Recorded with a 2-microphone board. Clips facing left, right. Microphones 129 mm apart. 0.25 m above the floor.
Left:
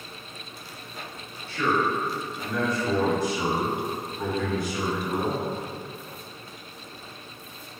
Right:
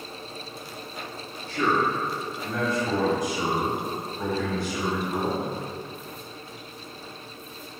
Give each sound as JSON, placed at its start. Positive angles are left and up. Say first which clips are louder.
{"t": 1.5, "sound": "a man speaking", "louder": "right 1 dB", "side_deg": -50, "distance_m": 1.8}